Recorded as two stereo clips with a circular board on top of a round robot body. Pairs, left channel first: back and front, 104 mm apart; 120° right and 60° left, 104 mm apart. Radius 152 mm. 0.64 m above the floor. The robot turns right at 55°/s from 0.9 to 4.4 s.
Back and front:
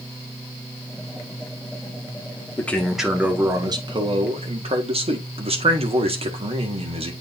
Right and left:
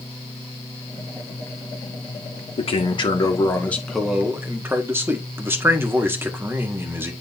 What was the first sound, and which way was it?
A man speaking, 110° right.